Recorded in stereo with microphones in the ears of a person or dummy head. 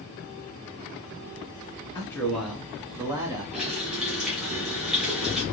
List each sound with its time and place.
1.9 s a man speaking: 15° left (ahead or behind), 0.8 m; by 3.4 s 20° right (ahead or behind), 1.2 m
3.5 s a running tap: 5° right (ahead or behind), 2.0 m